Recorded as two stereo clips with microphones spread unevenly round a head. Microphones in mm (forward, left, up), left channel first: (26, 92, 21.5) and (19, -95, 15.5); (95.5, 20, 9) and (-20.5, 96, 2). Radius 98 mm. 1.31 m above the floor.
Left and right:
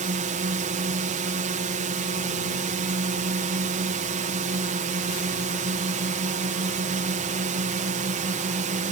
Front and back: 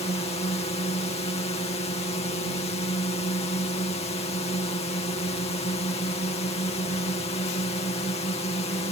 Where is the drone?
70° right.